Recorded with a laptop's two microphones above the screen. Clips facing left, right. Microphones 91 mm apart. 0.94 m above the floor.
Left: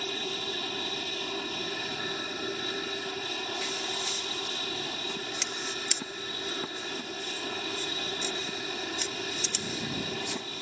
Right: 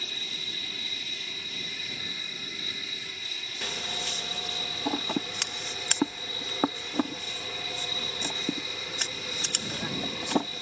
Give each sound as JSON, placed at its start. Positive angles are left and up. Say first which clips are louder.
{"t": 0.0, "sound": "an aircraft", "louder": "left 8 dB", "side_deg": 55}
{"t": 3.6, "sound": "scissors", "louder": "left 2 dB", "side_deg": -65}